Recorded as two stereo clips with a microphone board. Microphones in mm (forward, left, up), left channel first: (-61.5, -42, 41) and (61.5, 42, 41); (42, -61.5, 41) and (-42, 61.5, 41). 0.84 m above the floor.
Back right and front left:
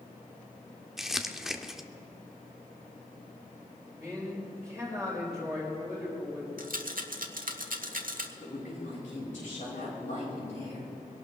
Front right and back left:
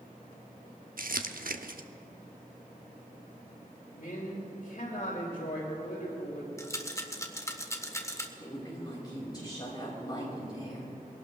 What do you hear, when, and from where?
1.0 s crumpling: 120° left, 0.8 m
3.9 s a man speaking: 60° right, 4 m
6.6 s a rattle: 15° left, 1.3 m
8.4 s a woman speaking: 120° right, 4.5 m